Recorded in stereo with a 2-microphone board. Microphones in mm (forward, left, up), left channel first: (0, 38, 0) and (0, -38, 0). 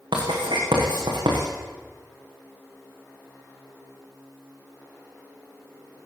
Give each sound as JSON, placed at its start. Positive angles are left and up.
{"t": 0.1, "sound": "writing", "side_deg": -85, "distance_m": 8.5}